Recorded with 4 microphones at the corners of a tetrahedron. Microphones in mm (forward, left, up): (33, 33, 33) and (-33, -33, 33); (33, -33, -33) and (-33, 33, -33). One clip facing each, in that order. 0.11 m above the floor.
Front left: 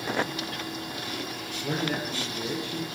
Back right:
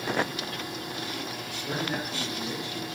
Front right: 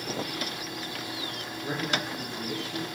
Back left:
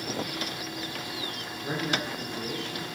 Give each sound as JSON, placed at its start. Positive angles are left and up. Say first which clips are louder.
{"t": 1.6, "sound": "a man speaking", "louder": "front left 2 dB, back left 1 dB", "azimuth_deg": 60, "distance_m": 3.5}